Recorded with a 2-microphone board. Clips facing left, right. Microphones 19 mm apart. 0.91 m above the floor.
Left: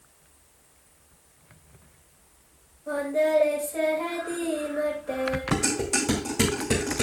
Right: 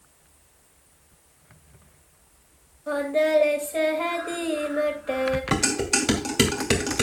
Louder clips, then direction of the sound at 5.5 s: Right 2 dB; 70° right (ahead or behind).